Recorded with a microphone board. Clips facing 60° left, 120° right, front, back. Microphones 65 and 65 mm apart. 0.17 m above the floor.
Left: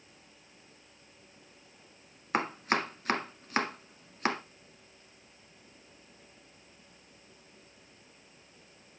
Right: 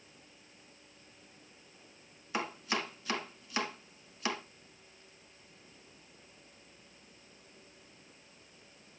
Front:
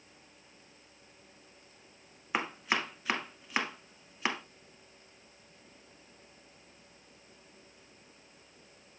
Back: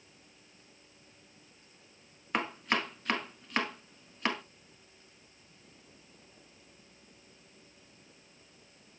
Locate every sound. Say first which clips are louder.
2.3 s chopping: left 6 dB, back 1 dB; 85° left, 0.9 m